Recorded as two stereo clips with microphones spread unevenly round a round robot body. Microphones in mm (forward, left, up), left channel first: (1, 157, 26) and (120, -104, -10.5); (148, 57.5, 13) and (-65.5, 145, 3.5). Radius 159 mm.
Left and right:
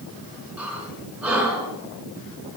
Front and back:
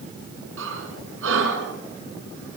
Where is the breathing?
150° right, 4 m.